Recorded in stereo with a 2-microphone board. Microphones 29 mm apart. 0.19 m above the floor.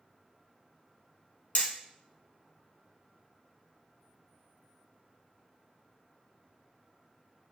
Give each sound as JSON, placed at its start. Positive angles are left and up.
{"t": 1.6, "sound": "hammering", "side_deg": 60, "distance_m": 0.8}